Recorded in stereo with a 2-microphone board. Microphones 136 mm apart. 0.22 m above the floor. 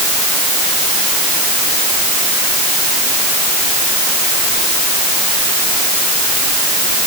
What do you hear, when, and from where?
Only background noise.